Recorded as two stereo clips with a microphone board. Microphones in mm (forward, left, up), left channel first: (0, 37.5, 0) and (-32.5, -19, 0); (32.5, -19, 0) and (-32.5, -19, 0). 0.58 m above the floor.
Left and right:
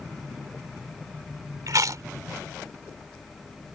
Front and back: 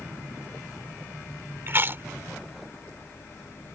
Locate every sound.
1.7 s chewing: 130° right